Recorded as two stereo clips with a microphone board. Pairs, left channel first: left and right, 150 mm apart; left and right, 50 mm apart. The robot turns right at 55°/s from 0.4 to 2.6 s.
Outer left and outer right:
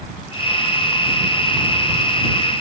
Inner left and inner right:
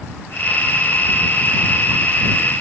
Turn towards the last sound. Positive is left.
No sound to turn to.